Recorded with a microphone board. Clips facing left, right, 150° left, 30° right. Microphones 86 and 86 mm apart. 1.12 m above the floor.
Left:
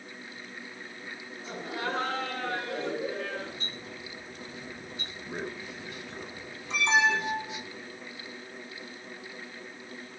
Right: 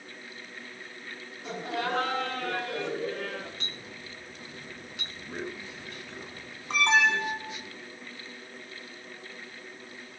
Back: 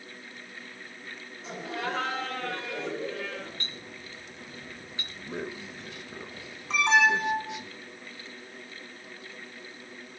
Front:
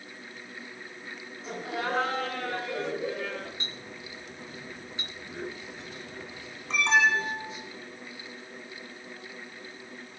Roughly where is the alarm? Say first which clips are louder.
Right 1 dB, back 1 dB; behind right.